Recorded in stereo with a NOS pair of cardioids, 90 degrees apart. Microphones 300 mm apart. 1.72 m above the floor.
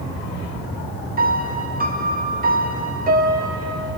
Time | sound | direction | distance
1.2 | a piano | 30° right | 0.8 m